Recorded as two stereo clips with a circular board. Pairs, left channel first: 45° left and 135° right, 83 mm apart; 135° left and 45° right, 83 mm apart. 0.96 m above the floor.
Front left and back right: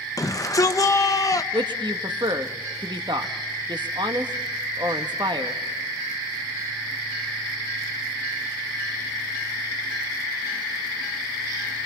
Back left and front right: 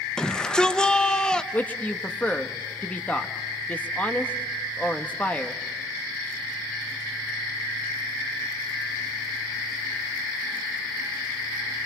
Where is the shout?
60° left, 1.1 m.